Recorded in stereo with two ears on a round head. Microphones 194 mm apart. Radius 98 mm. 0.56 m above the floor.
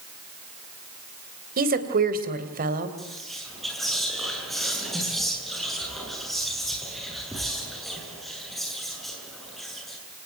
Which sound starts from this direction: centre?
Whispering, at 3.0 s.